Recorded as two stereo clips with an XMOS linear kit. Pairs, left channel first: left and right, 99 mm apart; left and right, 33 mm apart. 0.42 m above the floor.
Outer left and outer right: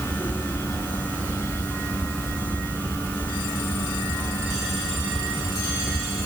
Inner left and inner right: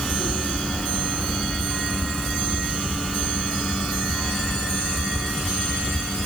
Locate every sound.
Only background noise.